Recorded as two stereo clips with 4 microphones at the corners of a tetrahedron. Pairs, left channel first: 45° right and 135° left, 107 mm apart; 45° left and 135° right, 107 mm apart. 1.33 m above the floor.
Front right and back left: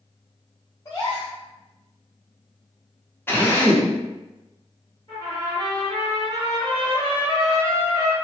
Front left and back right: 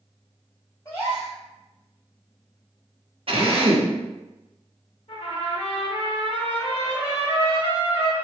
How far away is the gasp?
About 1.4 m.